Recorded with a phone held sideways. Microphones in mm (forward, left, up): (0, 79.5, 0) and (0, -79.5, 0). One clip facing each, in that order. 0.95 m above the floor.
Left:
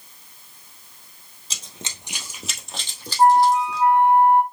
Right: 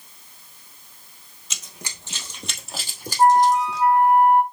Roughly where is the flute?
Left.